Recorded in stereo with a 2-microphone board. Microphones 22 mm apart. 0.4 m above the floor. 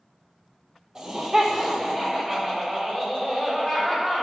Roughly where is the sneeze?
I don't hear a sneeze.